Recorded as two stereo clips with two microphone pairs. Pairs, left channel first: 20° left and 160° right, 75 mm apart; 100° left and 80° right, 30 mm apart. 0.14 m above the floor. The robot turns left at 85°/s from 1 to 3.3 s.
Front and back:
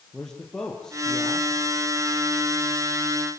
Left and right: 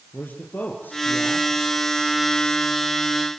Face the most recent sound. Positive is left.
turn(degrees=-95)